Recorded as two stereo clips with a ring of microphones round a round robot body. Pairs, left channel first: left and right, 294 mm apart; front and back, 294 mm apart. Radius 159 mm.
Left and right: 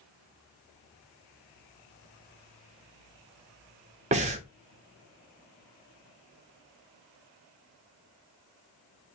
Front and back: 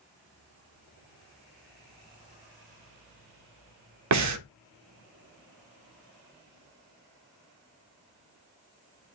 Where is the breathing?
160° right, 0.6 m.